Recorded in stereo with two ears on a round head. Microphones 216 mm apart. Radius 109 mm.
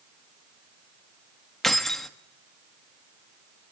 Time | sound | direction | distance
1.6 | keys jangling | centre (ahead or behind) | 1.5 m